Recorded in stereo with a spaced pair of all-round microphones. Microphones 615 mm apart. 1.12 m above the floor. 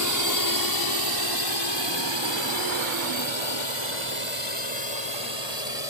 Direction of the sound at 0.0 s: 30° left (ahead or behind).